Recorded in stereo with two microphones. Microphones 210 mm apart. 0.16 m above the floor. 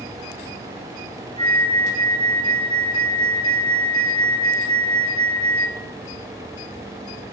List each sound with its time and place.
1.4 s a flute: 30° right (ahead or behind), 1.1 m